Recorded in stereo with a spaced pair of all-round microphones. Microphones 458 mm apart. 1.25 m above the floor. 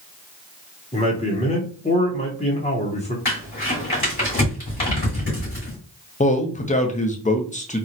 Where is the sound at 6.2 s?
20° left (ahead or behind), 0.5 m.